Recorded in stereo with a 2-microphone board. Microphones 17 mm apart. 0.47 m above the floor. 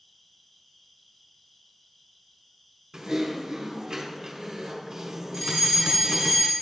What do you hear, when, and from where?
0.0 s an insect: 35° left (ahead or behind), 2 m
2.9 s typing on a keyboard: 45° right (ahead or behind), 1.7 m
5.3 s a fire alarm: centre (ahead or behind), 1.9 m